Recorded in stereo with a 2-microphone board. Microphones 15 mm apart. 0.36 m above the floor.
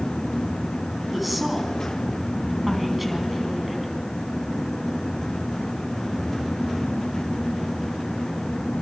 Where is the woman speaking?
5° right (ahead or behind), 4 m.